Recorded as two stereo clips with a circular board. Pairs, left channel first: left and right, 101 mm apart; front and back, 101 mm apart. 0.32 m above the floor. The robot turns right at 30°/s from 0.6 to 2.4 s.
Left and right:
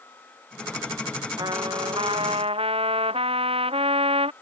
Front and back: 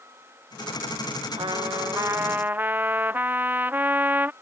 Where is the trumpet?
140° right; by 4.3 s 110° right.